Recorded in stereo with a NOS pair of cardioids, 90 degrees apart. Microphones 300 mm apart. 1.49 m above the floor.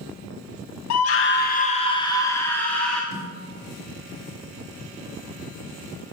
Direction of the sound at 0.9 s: 65° left.